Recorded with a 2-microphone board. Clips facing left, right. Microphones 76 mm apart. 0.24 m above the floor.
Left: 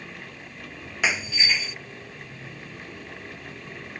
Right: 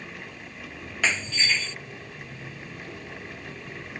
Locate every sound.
1.0 s breaking glass: 10° left (ahead or behind)